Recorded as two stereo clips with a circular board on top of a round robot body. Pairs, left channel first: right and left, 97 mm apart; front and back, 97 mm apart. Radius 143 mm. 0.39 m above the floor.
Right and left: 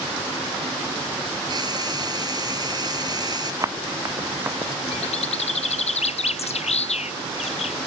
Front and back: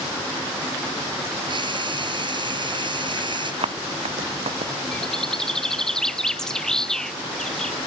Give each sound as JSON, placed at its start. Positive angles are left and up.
{"t": 1.5, "sound": "frying", "azimuth_deg": 140}
{"t": 3.6, "sound": "running footsteps", "azimuth_deg": 150}
{"t": 4.9, "sound": "a bird", "azimuth_deg": -85}